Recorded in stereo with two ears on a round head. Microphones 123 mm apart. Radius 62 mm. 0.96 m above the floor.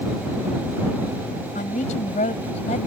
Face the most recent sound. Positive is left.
turn(degrees=45)  # may be behind; listen again after turning